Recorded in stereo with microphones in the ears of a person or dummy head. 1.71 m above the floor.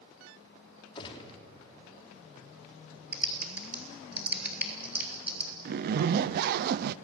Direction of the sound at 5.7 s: 55° right (ahead or behind).